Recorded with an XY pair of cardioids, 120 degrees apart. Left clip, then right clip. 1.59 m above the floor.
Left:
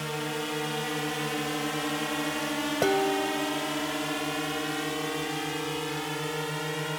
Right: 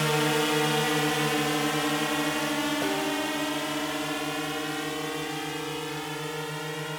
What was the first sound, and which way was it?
A drone, 50° right.